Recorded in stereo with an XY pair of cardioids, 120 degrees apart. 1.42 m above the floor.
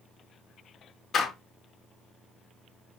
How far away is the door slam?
About 0.9 m.